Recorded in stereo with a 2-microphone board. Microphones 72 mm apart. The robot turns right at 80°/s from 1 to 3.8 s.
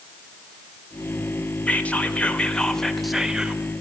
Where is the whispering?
20° left (ahead or behind), 0.8 m; by 3.6 s 15° right (ahead or behind), 0.8 m.